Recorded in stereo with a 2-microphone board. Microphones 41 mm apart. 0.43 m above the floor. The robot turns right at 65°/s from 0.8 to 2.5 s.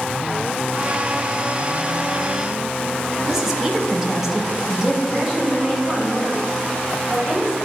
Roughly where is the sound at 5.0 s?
Centre.